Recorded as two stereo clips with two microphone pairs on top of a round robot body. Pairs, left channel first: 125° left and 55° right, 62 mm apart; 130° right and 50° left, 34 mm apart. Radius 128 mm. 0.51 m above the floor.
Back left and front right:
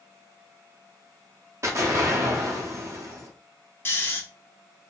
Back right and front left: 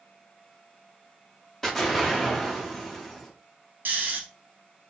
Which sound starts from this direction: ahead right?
An explosion, at 1.6 s.